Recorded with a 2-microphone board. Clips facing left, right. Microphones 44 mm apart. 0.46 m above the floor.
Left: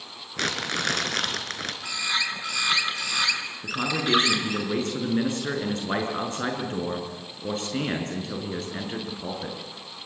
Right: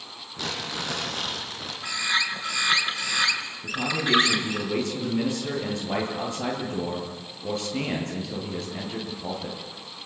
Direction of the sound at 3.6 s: 50° left (ahead or behind).